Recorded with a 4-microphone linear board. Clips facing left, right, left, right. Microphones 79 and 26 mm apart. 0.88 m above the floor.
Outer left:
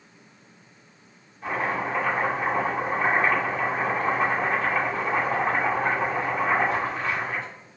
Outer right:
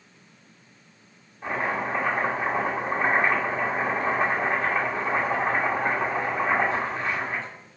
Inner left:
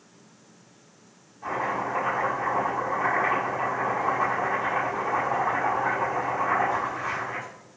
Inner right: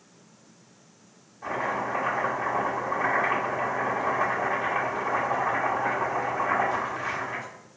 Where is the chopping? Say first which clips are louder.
Even, inner left 1 dB; 25° right (ahead or behind), 1.7 m.